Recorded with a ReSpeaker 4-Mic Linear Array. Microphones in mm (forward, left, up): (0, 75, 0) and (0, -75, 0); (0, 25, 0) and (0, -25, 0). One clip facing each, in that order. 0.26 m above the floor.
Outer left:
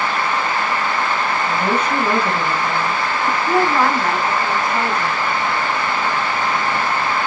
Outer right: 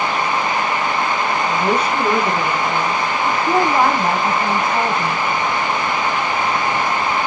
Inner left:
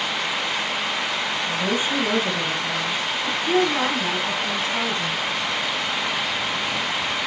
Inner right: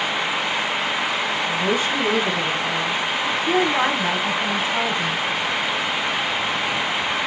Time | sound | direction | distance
1.5 | a woman speaking | 20° left (ahead or behind) | 4 m
3.2 | a woman speaking | 25° right (ahead or behind) | 1.7 m